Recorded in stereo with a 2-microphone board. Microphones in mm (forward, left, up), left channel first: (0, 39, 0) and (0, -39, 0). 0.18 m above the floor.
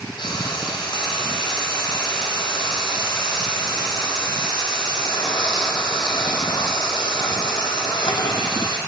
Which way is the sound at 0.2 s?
85° left.